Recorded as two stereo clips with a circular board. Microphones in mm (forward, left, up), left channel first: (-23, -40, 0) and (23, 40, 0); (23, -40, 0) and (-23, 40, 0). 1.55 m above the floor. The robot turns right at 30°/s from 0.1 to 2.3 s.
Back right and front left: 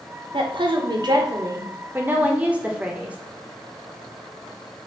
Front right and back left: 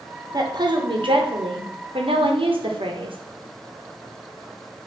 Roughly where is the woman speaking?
Left.